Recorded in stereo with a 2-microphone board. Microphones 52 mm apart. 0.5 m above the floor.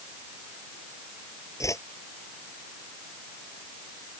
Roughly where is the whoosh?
Left.